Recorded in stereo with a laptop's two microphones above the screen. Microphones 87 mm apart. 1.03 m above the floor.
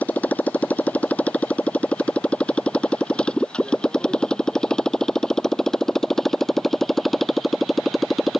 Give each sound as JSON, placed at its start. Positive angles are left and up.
{"t": 0.0, "sound": "a motorcycle", "side_deg": 15}